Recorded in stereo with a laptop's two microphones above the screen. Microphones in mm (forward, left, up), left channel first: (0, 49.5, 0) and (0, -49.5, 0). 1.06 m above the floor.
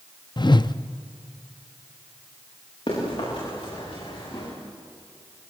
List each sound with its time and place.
0.4 s a whoosh: 45° left (ahead or behind), 0.6 m
2.9 s running footsteps: 60° left (ahead or behind), 9.5 m; by 4.5 s 65° left (ahead or behind), 10 m